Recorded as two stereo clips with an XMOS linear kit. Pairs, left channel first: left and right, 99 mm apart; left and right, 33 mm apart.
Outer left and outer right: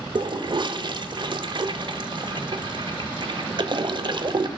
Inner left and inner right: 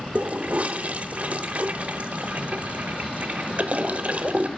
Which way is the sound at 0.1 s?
50° right (ahead or behind).